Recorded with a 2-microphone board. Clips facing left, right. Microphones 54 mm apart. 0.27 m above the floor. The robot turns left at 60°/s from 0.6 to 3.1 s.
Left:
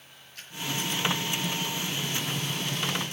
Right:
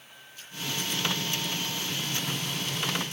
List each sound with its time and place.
0.3 s a splash: 70° left (ahead or behind), 6.5 m